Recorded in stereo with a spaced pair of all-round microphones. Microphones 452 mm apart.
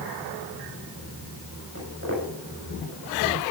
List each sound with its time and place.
1.8 s footsteps: 30° right (ahead or behind), 7.5 m